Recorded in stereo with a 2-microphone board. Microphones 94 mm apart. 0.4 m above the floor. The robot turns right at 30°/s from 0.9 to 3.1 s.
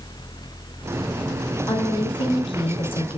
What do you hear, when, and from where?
1.7 s a woman speaking: 60° left, 4 m; by 3.2 s 100° left, 4 m